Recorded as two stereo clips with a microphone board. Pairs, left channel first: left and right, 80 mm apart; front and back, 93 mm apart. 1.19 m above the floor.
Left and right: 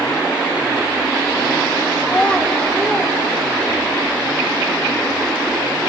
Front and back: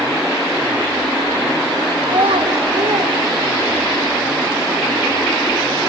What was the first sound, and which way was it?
A child speaking, 165° left.